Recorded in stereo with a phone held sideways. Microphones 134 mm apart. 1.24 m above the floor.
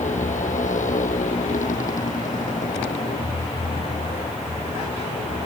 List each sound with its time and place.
0.0 s a motorcycle: 75° left (ahead or behind); by 5.5 s 90° left